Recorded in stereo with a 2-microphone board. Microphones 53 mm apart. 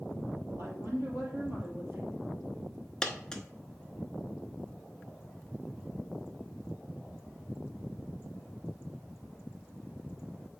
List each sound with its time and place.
0.5 s a woman speaking: 55° right (ahead or behind), 3.5 m
3.0 s a dropped coin: 10° left (ahead or behind), 0.9 m